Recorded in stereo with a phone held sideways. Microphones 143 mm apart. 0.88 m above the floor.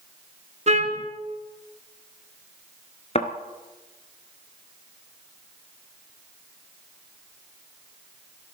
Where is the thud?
45° left (ahead or behind), 1.2 m.